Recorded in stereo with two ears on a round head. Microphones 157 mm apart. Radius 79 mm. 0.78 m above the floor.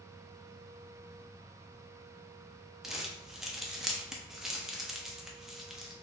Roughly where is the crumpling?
Centre.